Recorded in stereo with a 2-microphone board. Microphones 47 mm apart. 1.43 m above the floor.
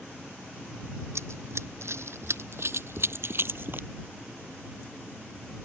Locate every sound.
1.1 s running footsteps: 70° right (ahead or behind); by 3.9 s 45° right (ahead or behind)